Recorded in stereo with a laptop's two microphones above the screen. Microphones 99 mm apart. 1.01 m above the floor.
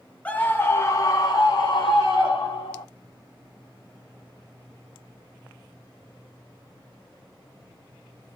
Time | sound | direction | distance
0.2 | a scream | 15° left (ahead or behind) | 1.0 m